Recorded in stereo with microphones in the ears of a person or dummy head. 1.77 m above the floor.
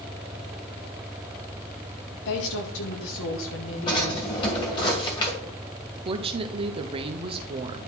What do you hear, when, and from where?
2.2 s a woman speaking: 60° left (ahead or behind), 1.2 m; by 4.3 s 75° left (ahead or behind), 2.5 m
3.9 s a drawer: 25° left (ahead or behind), 2.5 m
6.0 s a woman speaking: 25° right (ahead or behind), 0.9 m